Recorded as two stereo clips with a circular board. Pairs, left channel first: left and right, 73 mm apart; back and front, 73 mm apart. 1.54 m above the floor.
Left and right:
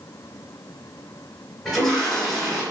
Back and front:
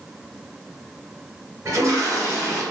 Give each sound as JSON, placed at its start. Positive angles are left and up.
{"t": 1.6, "sound": "a toilet flushing", "azimuth_deg": 0, "distance_m": 1.6}